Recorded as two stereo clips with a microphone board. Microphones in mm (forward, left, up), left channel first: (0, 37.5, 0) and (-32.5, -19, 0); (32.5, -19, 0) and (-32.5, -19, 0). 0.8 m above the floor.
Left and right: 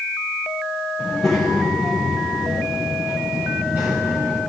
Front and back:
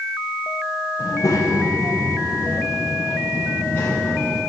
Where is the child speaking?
30° right, 2 m; by 4.4 s 75° right, 2.5 m.